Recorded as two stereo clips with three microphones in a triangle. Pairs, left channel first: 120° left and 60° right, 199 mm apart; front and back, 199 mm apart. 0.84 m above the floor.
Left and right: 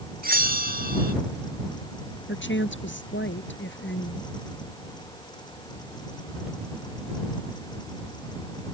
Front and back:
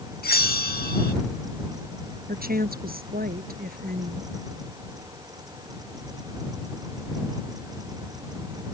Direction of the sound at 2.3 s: 140° left.